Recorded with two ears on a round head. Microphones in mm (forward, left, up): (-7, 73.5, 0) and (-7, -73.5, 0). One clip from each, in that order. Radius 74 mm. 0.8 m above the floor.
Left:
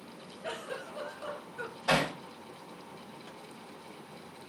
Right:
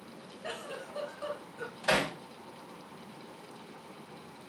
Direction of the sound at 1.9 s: 40° right (ahead or behind).